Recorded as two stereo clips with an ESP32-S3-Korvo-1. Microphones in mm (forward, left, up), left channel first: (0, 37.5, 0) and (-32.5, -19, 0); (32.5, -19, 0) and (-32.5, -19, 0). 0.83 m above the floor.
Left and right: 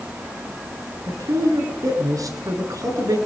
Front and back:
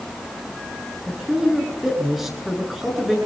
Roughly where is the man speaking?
Right.